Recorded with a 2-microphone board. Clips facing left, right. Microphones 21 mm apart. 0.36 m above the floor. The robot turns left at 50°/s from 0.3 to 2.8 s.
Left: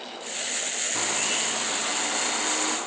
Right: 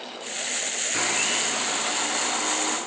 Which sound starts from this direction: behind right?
A blender, at 0.9 s.